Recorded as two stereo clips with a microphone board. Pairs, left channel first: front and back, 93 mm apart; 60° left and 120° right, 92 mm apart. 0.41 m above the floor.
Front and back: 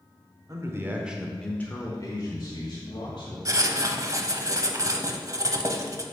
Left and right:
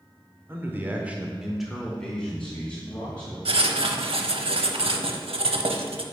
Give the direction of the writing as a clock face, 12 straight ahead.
4 o'clock.